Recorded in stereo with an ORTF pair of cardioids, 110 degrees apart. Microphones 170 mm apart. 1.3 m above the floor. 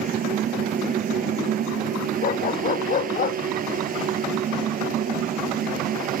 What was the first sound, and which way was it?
A fan, 50° right.